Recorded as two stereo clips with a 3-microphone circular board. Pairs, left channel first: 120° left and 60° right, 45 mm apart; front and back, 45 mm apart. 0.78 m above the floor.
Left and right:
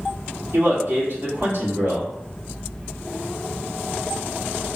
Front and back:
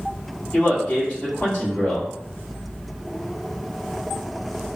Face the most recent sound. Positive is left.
turn(degrees=-70)